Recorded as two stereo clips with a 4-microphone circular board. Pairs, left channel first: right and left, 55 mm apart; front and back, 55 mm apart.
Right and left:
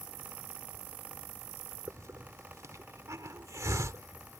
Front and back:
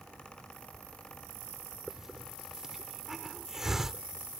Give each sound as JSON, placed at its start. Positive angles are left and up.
{"t": 1.9, "sound": "a hiss", "azimuth_deg": 100}